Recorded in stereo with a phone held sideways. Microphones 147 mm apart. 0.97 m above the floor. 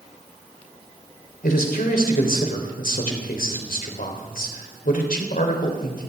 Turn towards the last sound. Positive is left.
turn(degrees=80)